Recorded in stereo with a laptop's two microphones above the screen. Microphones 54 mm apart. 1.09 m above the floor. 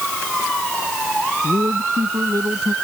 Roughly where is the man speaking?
Right.